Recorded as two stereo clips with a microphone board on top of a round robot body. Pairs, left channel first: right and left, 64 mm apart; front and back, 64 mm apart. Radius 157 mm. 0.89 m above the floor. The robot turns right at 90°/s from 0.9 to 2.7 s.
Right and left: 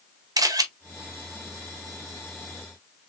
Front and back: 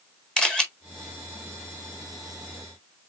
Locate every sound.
0.4 s a camera shutter: 80° left, 1.5 m